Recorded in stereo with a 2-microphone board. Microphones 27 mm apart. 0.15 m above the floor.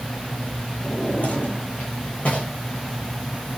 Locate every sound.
0.8 s a drawer: 55° left (ahead or behind), 6 m